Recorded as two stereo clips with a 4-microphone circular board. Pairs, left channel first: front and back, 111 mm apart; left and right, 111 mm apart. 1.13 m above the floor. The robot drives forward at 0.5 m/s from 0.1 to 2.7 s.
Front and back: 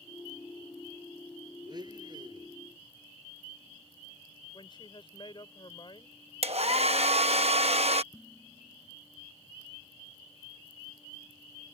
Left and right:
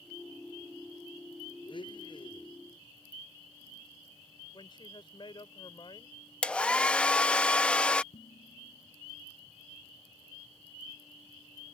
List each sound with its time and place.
1.7 s a blender: 130° left
4.5 s a woman speaking: 45° left
6.4 s a hair dryer: 170° left
8.1 s dishes clattering: 90° left